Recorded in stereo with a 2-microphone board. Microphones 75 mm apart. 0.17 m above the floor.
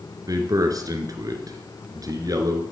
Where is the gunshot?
I don't hear a gunshot.